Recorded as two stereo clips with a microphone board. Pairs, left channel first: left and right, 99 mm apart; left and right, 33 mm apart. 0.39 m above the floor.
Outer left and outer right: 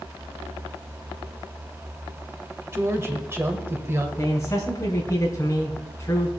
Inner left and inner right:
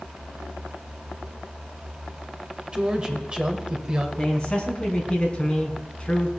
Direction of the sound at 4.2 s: 30° left (ahead or behind).